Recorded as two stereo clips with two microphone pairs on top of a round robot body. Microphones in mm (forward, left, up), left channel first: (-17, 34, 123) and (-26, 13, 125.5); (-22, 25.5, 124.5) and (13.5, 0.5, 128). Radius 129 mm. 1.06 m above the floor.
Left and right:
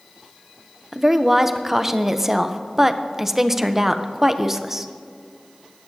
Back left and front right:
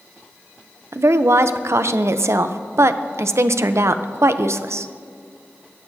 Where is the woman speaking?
35° right, 0.6 m.